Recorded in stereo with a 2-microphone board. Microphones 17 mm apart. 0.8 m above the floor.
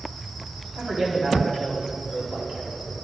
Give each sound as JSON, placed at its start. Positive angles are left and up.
{"t": 0.8, "sound": "a man speaking", "side_deg": -40, "distance_m": 1.9}